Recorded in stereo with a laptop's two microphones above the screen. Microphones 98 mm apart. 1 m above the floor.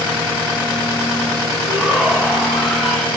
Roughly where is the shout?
Centre.